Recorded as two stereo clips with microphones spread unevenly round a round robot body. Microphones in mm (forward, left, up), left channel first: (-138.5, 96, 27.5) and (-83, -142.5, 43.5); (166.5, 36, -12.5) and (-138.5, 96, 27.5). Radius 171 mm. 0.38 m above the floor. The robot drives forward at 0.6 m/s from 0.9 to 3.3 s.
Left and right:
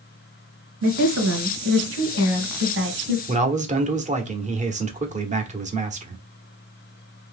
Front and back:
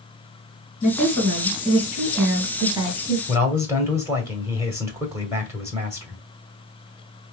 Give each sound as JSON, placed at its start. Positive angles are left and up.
{"t": 0.8, "sound": "a woman speaking", "azimuth_deg": -80, "distance_m": 2.5}
{"t": 3.3, "sound": "a man speaking", "azimuth_deg": -105, "distance_m": 1.0}